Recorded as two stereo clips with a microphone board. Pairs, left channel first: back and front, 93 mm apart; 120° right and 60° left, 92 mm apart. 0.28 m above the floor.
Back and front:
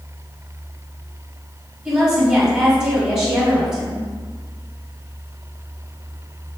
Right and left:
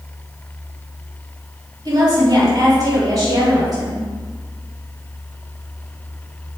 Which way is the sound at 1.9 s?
85° left.